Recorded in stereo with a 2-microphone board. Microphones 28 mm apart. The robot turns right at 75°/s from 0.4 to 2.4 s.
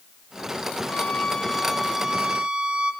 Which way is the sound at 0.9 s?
120° left.